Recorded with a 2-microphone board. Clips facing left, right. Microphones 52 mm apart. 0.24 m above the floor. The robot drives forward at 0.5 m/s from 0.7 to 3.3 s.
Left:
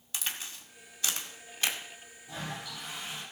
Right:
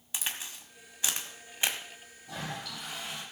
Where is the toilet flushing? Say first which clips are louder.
Right 1 dB; 55° right (ahead or behind), 9 m.